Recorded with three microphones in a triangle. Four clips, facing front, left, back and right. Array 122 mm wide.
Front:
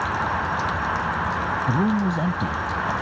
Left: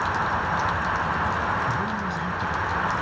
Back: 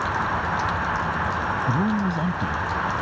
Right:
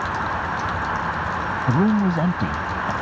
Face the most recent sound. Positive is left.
turn(degrees=-80)